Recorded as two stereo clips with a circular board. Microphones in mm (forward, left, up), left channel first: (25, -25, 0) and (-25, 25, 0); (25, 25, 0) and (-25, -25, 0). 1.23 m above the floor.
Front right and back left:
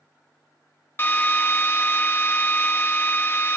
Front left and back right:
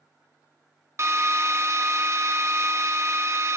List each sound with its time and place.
1.0 s a drill: 95° right, 0.7 m